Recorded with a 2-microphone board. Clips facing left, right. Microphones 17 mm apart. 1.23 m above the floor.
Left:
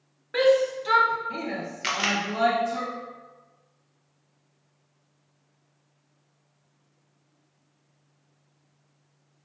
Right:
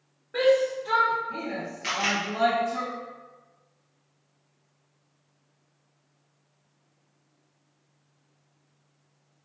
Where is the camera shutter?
40° left (ahead or behind), 0.7 m.